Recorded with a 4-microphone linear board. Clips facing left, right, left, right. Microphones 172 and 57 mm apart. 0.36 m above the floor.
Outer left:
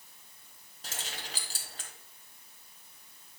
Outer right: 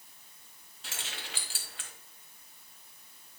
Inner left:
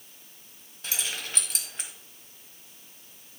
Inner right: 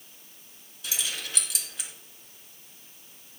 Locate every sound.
0.8 s keys jangling: 40° left (ahead or behind), 1.5 m